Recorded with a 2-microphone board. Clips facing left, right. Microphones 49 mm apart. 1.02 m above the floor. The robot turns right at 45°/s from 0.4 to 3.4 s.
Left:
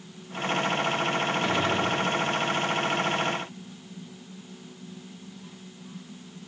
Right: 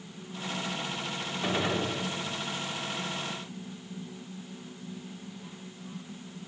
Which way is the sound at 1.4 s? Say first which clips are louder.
Even; 5° right (ahead or behind).